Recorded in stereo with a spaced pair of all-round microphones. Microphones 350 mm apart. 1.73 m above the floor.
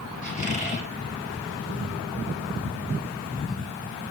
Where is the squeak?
20° left (ahead or behind), 7.5 m.